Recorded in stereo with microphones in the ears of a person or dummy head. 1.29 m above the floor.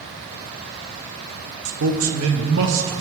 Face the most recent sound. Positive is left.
turn(degrees=-65)  # may be behind; listen again after turning